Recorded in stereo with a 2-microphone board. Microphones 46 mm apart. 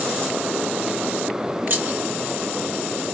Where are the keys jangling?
40° right (ahead or behind), 1.3 m.